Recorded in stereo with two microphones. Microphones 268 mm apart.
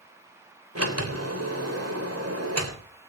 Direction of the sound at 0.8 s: 65° right (ahead or behind).